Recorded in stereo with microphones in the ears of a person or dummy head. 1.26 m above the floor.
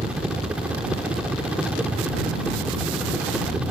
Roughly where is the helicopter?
Centre.